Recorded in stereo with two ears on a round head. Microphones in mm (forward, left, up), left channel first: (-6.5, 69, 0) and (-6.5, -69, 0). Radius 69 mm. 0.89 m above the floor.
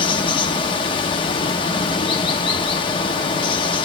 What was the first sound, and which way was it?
Running water, 30° left (ahead or behind).